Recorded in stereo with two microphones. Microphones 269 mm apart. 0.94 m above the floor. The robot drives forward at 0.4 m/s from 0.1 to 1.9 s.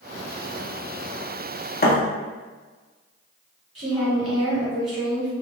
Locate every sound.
1.8 s a thud: 35° left (ahead or behind), 0.5 m
3.8 s a woman speaking: 60° right (ahead or behind), 1.7 m